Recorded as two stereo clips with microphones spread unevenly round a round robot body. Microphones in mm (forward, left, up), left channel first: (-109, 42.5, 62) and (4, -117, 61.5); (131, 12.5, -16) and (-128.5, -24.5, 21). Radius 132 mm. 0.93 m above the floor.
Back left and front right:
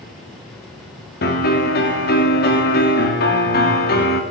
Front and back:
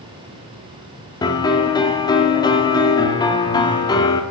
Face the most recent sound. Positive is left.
turn(degrees=80)